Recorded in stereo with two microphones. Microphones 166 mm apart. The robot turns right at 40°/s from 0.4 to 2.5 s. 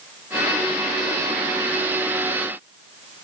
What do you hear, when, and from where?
Only background noise.